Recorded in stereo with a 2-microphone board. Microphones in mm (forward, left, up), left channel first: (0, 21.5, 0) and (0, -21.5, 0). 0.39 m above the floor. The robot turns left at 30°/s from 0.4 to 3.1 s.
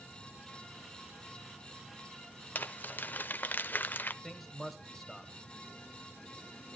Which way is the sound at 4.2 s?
5° left (ahead or behind).